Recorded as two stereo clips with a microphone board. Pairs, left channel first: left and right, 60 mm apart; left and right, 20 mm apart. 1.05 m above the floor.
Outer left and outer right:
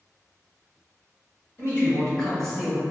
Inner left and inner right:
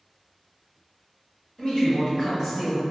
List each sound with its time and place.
1.6 s a man speaking: 45° left (ahead or behind), 1.5 m; by 2.8 s 5° right (ahead or behind), 1.2 m